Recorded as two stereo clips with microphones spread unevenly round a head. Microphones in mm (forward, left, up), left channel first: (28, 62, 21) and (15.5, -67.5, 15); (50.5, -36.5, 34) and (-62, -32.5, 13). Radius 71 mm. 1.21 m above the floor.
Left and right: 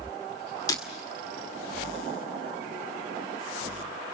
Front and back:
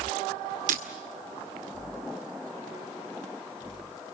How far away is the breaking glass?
About 2 m.